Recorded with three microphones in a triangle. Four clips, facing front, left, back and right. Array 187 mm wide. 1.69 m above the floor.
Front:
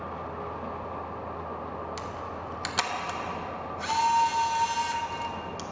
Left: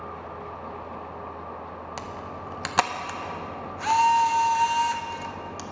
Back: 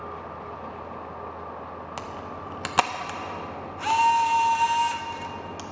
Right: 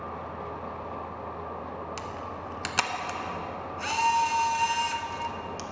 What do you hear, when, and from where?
2.0 s a camera shutter: 145° left, 0.5 m